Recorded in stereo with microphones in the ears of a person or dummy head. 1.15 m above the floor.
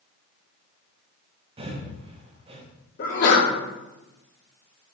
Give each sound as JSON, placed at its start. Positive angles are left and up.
{"t": 1.6, "sound": "breathing", "side_deg": -35, "distance_m": 0.9}
{"t": 3.0, "sound": "a sneeze", "side_deg": 55, "distance_m": 2.0}